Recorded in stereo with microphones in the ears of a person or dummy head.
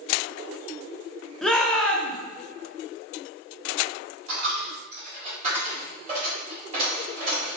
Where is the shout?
Centre (ahead or behind), 0.8 m.